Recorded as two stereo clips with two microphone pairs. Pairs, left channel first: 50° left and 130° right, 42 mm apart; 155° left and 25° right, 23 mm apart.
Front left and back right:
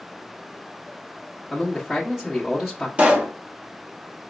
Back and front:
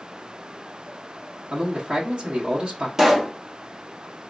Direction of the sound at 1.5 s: 50° right.